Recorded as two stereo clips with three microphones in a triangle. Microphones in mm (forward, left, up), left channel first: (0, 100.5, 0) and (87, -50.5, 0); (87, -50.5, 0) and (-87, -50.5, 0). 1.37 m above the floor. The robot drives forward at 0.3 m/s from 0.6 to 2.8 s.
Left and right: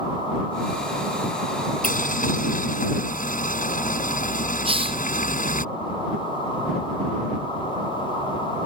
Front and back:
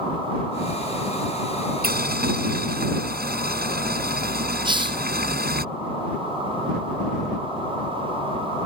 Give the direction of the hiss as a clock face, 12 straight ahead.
4 o'clock.